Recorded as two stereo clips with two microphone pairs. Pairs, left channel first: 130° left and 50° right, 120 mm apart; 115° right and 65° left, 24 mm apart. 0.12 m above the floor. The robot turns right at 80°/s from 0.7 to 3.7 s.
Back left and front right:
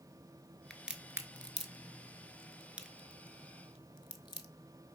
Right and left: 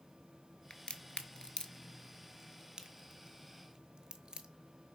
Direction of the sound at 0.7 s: 145° right.